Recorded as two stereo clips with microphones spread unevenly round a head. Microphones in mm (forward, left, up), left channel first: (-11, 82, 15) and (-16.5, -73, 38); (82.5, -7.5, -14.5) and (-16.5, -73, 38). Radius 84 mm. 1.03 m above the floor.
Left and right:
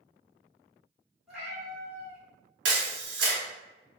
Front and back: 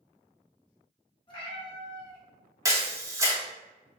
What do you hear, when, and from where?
1.3 s a cat meowing: 20° right, 1.1 m
2.6 s a camera shutter: 75° right, 0.9 m